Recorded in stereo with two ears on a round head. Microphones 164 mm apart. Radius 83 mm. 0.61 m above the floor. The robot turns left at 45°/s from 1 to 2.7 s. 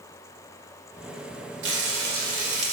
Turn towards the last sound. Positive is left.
turn(degrees=-140)